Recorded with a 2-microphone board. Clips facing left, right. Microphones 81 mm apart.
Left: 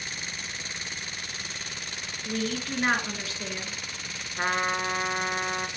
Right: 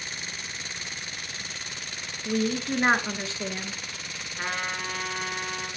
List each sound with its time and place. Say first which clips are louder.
2.2 s a woman speaking: right 4 dB; 30° right (ahead or behind), 1.6 m
4.4 s a trumpet: left 5 dB; 35° left (ahead or behind), 1.5 m